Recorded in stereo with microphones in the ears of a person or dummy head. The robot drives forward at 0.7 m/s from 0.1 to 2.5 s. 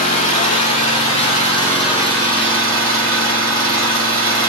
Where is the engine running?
40° left (ahead or behind), 2.5 m; by 4.5 s 25° left (ahead or behind), 4 m.